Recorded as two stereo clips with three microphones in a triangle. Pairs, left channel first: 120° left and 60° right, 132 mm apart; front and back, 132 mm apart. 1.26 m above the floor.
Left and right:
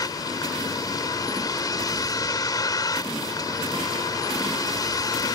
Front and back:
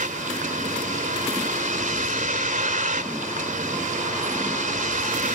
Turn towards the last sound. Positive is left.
turn(degrees=180)